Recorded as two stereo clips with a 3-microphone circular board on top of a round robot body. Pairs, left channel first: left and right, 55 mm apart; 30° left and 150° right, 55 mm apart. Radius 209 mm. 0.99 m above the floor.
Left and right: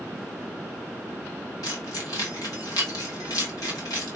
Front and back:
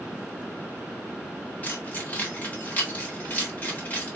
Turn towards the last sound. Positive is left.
turn(degrees=90)